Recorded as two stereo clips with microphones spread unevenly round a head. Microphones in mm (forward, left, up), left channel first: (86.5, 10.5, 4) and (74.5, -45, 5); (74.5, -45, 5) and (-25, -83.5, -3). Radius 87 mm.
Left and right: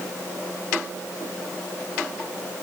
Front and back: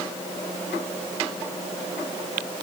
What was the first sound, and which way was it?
Only background noise.